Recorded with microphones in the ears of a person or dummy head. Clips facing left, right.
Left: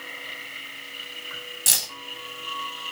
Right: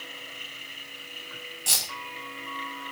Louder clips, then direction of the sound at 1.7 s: Even; 20° left (ahead or behind).